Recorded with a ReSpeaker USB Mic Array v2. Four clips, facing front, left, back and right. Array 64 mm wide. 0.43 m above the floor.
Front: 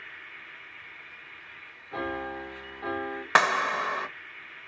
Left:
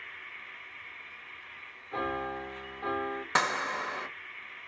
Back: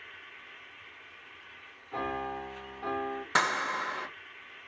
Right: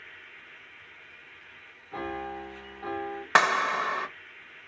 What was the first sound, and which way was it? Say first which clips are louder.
An insect: left 3 dB, front 5 dB; 5° left.